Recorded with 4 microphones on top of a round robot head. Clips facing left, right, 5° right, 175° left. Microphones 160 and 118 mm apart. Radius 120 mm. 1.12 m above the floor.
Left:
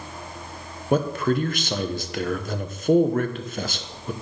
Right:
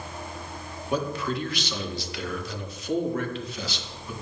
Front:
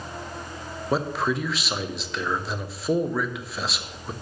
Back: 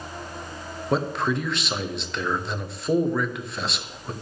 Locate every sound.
0.9 s a man speaking: 85° left, 0.9 m